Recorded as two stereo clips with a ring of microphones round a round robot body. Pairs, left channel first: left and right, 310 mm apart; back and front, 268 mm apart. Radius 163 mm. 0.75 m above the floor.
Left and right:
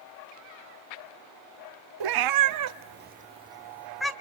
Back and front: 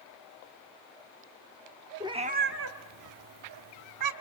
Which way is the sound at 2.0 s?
80° right.